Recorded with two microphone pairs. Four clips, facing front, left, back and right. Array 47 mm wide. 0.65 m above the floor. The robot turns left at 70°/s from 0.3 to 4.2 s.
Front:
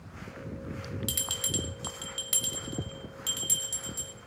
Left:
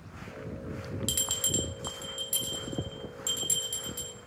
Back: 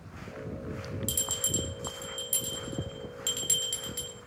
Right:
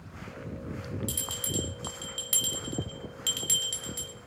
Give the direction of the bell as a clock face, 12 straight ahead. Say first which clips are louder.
Left 3 dB, front 1 dB; 10 o'clock.